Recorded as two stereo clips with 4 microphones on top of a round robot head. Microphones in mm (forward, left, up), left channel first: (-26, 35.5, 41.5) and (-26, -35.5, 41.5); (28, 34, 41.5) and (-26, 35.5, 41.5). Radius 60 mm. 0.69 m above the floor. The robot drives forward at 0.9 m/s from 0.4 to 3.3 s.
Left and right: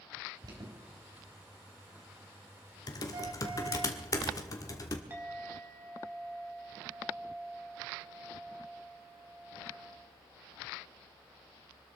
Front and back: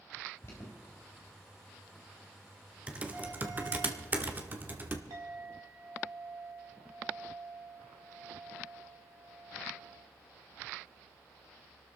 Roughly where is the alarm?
Ahead right.